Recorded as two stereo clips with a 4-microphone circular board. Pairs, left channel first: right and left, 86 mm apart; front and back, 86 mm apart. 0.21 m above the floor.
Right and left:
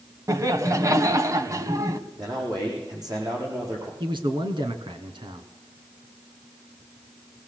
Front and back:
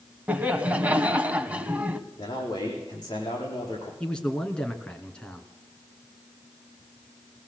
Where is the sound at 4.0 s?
80° left, 2.5 m.